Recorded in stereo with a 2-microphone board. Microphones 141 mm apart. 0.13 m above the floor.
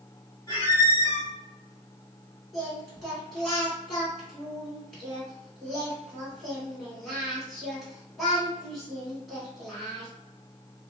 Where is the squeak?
30° left (ahead or behind), 1.7 m.